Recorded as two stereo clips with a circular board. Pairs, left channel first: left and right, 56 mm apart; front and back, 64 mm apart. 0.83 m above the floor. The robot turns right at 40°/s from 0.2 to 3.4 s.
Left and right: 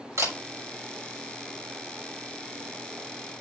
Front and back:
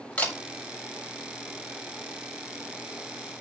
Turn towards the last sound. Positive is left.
turn(degrees=65)